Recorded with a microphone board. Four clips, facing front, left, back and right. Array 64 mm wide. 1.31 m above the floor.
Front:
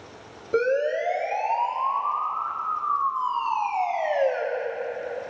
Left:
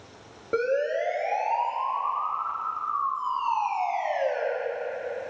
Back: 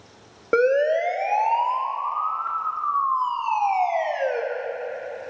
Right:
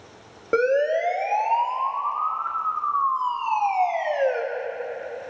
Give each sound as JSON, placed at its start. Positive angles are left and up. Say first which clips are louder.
{"t": 0.5, "sound": "a siren", "louder": "right 5 dB, back 4 dB", "azimuth_deg": -150, "distance_m": 3.0}